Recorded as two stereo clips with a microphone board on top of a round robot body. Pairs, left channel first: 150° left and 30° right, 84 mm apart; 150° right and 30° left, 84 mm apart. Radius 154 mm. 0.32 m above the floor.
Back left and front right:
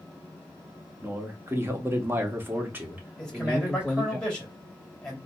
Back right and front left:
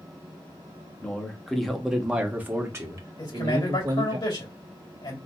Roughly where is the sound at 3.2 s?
Behind right.